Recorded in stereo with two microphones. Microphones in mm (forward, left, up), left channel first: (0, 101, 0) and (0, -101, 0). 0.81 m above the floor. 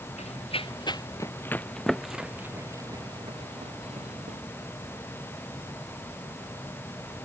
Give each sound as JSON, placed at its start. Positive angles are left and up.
{"t": 0.2, "sound": "running footsteps", "side_deg": 30}